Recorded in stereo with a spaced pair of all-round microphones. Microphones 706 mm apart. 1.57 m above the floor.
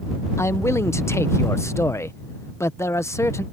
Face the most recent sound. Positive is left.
turn(degrees=5)  # may be behind; listen again after turning